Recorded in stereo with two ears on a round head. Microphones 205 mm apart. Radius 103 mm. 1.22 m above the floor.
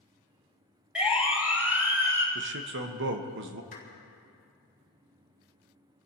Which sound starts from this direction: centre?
A siren, at 0.9 s.